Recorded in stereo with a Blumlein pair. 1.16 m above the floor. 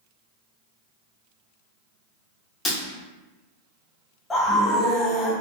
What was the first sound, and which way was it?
Breaking glass, 15° left.